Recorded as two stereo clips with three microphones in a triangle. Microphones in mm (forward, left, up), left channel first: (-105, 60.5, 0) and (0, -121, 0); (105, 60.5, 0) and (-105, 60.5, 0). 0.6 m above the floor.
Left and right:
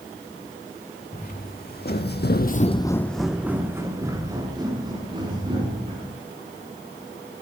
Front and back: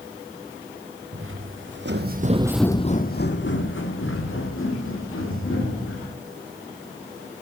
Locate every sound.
1.1 s footsteps: 170° left, 2.5 m; by 6.2 s 5° left, 5.5 m